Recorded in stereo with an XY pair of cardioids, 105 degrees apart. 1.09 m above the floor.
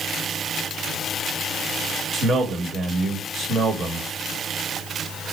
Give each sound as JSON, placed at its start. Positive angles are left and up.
{"t": 2.1, "sound": "a man speaking", "azimuth_deg": -60, "distance_m": 1.2}